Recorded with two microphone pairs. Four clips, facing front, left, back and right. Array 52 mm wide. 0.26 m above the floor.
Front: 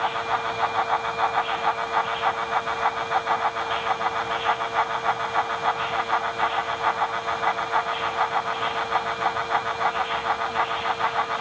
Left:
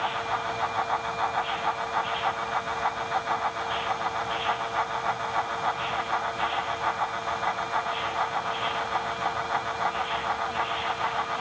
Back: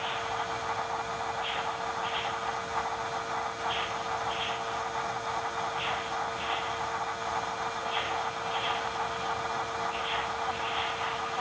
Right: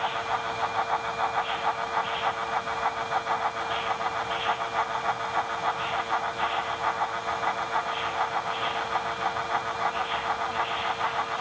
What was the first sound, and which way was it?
Only background noise.